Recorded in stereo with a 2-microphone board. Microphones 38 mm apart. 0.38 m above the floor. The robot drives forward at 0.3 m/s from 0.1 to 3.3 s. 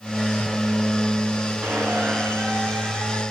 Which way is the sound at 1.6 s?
75° right (ahead or behind).